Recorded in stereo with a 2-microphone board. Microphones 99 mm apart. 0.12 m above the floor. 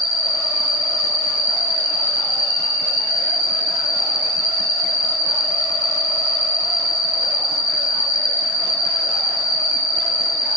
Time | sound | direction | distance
0.0 | an insect | 75° right (ahead or behind) | 1.3 m